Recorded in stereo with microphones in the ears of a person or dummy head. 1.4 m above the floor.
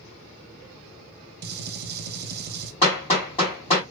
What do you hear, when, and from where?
1.4 s a gunshot: 50° right (ahead or behind), 0.6 m
2.8 s hammering: 40° left (ahead or behind), 1.7 m